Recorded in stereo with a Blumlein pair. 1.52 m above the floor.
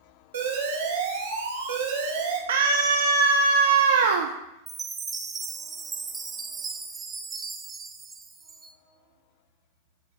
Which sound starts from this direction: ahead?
A chime, at 4.7 s.